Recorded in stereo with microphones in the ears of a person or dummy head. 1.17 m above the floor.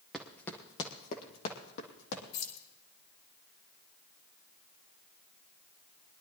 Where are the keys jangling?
85° left, 3.5 m.